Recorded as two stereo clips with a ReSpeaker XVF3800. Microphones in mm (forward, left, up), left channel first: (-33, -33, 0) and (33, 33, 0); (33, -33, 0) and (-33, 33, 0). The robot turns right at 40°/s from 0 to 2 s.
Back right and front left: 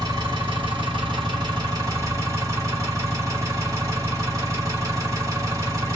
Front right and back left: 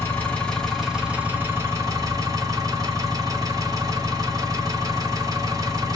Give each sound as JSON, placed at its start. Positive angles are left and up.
{"t": 0.0, "sound": "an engine running", "azimuth_deg": 10, "distance_m": 1.4}